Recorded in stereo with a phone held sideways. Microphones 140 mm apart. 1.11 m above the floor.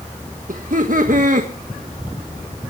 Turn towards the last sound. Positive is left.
turn(degrees=-65)  # may be behind; listen again after turning